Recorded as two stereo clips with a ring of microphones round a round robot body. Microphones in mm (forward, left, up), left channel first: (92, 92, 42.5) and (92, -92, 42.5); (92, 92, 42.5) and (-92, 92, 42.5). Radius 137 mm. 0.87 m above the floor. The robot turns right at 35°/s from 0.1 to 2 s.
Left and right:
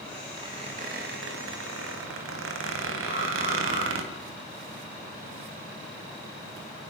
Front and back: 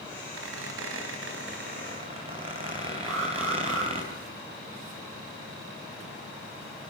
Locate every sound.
0.4 s a squeak: 165° right, 3 m; by 4.0 s 110° right, 3 m
3.0 s an alarm: 155° right, 9.5 m